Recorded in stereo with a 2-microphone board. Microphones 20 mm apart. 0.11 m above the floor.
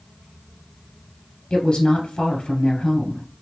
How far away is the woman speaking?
About 1.9 m.